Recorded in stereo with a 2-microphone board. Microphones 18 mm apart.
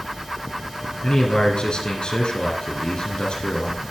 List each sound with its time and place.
1.0 s a man speaking: 60° left (ahead or behind), 2 m